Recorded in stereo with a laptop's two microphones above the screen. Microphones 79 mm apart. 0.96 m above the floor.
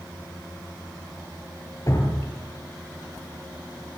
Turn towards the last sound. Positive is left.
turn(degrees=45)  # may be behind; listen again after turning